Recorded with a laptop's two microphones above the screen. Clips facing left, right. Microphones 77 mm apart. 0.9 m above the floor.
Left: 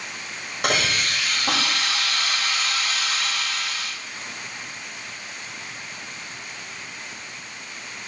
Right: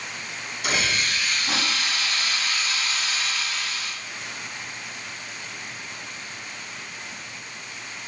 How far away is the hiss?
About 5.5 m.